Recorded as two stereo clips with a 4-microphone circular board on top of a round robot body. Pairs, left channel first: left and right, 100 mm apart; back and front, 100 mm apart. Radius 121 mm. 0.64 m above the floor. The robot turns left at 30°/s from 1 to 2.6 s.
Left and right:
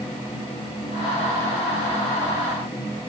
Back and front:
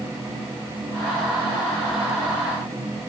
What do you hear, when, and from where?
Only background noise.